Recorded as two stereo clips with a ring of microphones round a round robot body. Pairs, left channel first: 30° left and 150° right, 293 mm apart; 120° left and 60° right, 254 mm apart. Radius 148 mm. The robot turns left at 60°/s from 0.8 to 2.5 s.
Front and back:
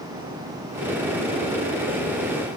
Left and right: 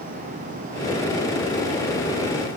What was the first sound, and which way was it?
Only background noise.